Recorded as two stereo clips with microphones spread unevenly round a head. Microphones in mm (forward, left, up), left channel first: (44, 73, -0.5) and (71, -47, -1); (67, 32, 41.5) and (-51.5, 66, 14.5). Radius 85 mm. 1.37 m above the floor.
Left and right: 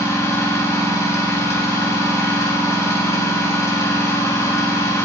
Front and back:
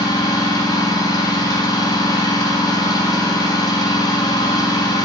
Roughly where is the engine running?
Ahead left.